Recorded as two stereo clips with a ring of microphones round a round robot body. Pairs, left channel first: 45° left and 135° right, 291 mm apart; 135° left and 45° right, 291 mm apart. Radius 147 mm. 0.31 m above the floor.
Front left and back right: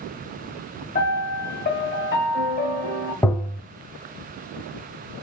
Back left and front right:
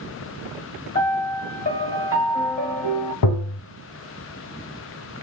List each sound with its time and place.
0.9 s a piano: 85° left, 1.3 m
3.2 s tapping: 125° left, 0.7 m